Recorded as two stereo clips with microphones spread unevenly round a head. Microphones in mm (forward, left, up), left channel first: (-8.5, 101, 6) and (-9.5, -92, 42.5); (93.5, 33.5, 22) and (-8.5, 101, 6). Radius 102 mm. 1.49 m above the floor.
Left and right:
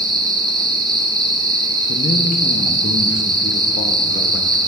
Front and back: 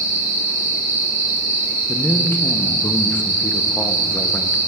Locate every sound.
0.0 s an insect: 160° right, 1.1 m
1.9 s a man speaking: 35° left, 0.8 m